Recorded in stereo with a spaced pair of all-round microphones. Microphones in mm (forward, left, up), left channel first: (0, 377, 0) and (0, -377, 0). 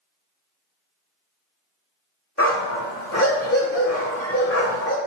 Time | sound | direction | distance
2.4 | a dog barking | 20° left (ahead or behind) | 1.0 m